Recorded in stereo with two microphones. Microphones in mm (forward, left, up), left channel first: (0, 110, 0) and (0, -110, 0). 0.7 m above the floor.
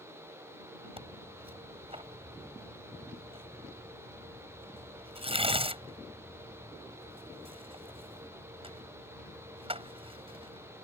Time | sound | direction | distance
1.0 | tearing paper | 25° right (ahead or behind) | ?